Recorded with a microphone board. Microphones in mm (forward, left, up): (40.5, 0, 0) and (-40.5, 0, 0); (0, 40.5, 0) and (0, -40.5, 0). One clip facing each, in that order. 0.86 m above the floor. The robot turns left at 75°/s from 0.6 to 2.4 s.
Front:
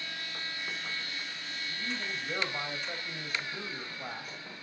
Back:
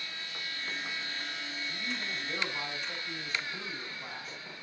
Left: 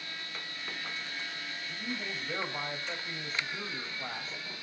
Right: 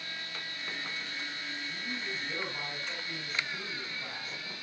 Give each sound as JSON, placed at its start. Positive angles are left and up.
{"t": 1.7, "sound": "a man speaking", "azimuth_deg": 95, "distance_m": 4.5}